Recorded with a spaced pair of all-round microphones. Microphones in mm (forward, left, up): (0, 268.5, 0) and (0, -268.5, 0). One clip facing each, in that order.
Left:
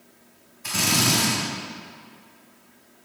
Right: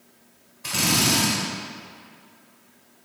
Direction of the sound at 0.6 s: 80° right.